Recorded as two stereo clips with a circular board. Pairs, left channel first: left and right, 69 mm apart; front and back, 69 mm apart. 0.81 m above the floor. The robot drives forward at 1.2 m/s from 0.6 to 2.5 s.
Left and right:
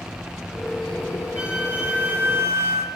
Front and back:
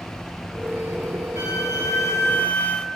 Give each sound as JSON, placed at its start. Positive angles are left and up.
{"t": 1.4, "sound": "a flute", "azimuth_deg": -20, "distance_m": 1.8}